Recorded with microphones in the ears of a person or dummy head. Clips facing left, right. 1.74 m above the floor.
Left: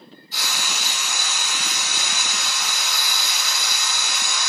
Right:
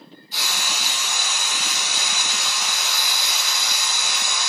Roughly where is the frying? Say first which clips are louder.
Even; centre.